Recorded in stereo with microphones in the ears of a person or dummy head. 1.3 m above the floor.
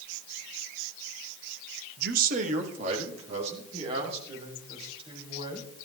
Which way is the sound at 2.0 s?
60° right (ahead or behind).